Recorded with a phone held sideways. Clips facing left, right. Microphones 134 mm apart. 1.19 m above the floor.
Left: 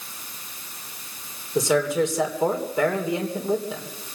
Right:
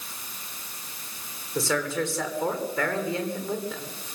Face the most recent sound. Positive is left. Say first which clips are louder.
# left 6 dB
turn(degrees=20)  # may be behind; listen again after turning